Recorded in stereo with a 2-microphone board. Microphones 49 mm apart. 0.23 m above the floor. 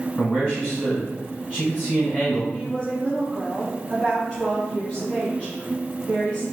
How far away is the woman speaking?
About 2.0 m.